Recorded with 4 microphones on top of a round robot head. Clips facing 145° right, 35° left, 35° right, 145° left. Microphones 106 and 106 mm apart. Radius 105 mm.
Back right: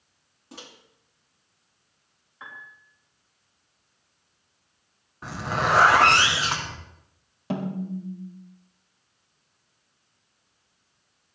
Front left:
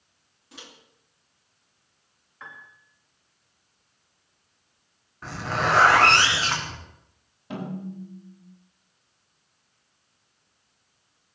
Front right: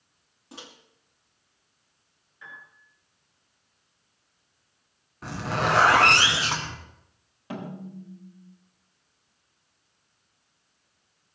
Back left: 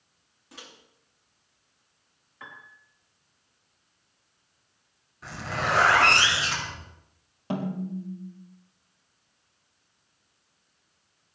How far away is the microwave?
About 2.5 m.